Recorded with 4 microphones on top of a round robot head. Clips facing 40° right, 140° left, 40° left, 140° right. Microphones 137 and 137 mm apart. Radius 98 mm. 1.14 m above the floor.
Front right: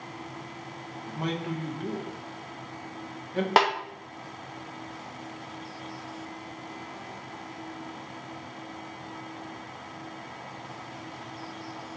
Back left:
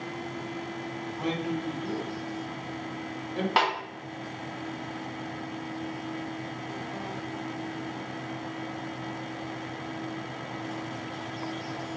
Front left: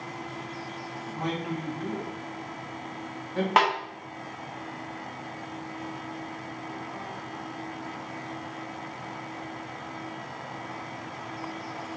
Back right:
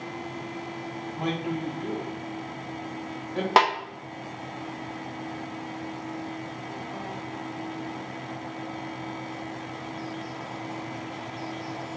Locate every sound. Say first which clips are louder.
1.1 s a man speaking: back left 1 dB, back right 2 dB; 75° right, 1.7 m
3.6 s a snare drum: front right 4 dB, back right 2 dB; 85° right, 0.8 m